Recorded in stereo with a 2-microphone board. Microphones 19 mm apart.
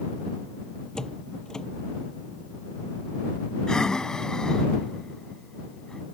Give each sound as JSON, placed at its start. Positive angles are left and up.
{"t": 0.9, "sound": "a door slam", "side_deg": 35}
{"t": 3.7, "sound": "breathing", "side_deg": 35}